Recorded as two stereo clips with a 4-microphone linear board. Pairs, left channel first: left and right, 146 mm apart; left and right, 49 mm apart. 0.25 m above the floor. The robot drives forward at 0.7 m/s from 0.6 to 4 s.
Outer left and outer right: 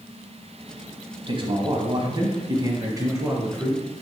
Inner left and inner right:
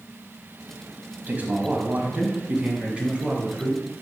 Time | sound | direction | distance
1.3 | a man speaking | 40° right (ahead or behind) | 1.3 m